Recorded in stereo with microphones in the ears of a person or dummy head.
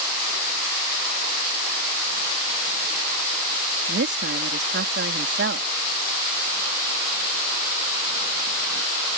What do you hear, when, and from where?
3.9 s a woman speaking: 50° right (ahead or behind)